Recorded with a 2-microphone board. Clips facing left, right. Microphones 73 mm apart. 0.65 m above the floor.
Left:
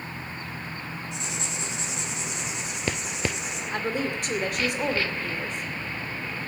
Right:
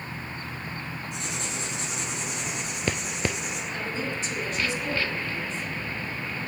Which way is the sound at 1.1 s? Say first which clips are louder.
Right 1 dB; 55° right (ahead or behind).